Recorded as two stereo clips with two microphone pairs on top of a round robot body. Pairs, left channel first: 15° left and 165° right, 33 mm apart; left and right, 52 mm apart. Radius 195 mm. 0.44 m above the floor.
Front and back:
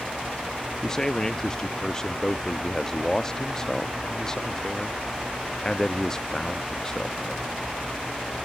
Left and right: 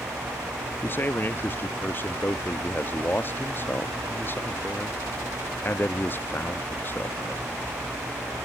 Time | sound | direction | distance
0.8 | a man speaking | 75° left | ?